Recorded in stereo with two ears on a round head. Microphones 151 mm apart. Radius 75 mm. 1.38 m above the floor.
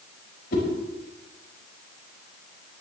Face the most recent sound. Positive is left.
turn(degrees=60)  # may be behind; listen again after turning